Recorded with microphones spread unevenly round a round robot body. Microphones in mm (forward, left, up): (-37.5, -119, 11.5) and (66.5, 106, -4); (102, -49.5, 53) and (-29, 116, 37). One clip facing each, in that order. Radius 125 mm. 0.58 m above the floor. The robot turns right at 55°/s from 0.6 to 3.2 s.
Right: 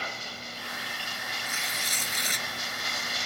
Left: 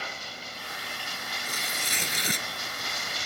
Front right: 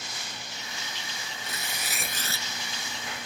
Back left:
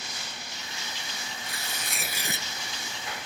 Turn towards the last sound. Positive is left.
turn(degrees=105)